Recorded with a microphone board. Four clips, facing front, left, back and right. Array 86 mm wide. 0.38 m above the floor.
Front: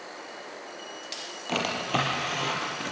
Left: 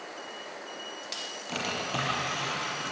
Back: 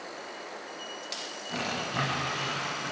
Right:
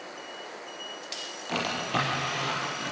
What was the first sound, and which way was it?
A drawer, 15° right.